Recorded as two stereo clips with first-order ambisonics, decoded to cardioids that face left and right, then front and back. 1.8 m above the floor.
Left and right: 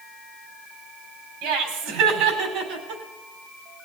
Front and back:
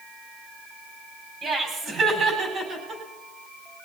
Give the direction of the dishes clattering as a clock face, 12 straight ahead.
I don't hear dishes clattering.